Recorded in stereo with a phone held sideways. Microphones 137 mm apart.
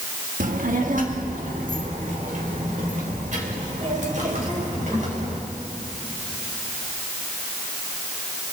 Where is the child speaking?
75° right (ahead or behind), 1.3 m; by 5.4 s 65° right (ahead or behind), 5 m.